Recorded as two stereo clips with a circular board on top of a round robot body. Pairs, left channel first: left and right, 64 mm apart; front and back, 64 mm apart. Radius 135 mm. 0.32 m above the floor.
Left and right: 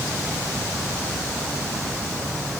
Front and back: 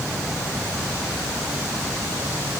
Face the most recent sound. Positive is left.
No sound to turn to.